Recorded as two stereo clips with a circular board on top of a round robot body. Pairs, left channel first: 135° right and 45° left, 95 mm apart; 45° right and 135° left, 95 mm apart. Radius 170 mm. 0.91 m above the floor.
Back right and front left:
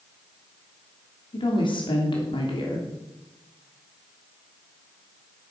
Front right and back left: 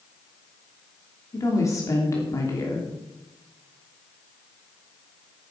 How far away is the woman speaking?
About 3 m.